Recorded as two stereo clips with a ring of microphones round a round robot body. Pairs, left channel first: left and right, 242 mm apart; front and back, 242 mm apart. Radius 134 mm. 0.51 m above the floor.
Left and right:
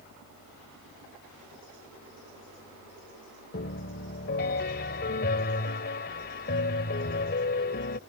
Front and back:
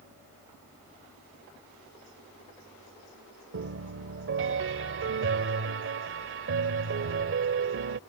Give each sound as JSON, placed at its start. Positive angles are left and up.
{"t": 3.5, "sound": "a piano", "azimuth_deg": 145}